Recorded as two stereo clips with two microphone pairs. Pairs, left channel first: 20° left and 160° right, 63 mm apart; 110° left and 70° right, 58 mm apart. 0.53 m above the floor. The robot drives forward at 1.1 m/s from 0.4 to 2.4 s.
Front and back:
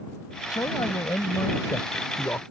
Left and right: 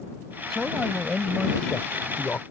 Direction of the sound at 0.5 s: 25° left.